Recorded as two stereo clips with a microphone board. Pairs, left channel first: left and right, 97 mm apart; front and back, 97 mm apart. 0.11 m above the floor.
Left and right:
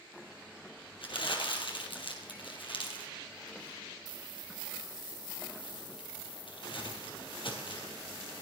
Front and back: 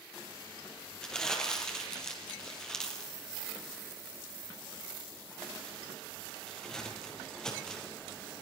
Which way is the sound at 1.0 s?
80° left.